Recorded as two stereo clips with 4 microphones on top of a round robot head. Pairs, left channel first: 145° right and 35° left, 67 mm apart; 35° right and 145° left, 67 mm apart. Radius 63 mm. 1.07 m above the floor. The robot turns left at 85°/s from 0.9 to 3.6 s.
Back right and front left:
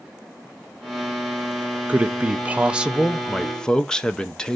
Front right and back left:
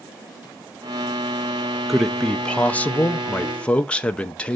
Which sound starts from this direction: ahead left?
A man speaking, at 1.9 s.